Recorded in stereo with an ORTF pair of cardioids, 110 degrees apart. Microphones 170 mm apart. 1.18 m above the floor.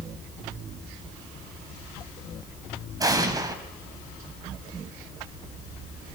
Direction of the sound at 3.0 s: 20° right.